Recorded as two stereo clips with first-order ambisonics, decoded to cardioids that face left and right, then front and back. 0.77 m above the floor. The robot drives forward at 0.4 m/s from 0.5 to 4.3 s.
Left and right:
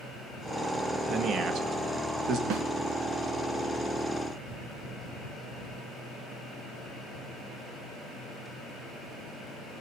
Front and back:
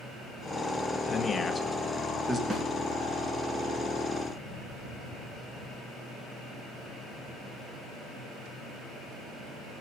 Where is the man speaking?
60° right, 1.0 m; by 2.4 s 110° right, 1.0 m.